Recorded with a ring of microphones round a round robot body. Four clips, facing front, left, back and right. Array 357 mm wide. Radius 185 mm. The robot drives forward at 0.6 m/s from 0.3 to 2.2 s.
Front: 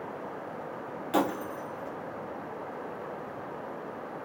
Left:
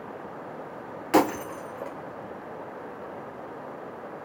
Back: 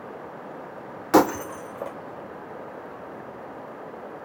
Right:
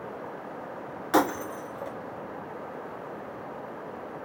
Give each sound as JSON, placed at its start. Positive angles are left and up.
{"t": 1.1, "sound": "breaking glass", "azimuth_deg": 165, "distance_m": 0.7}